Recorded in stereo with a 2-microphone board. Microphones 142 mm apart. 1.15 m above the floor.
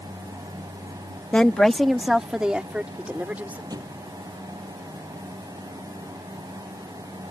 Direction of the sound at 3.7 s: 25° right (ahead or behind).